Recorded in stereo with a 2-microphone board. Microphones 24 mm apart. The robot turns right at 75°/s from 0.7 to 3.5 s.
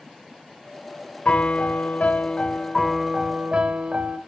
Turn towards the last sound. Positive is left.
turn(degrees=-135)